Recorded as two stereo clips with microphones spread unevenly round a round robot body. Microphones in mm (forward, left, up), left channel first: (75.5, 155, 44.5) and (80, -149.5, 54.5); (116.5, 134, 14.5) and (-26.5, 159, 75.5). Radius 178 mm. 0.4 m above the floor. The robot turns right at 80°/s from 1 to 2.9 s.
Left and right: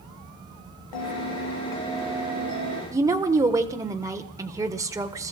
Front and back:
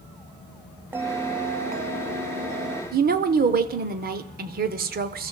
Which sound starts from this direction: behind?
A woman speaking, at 2.9 s.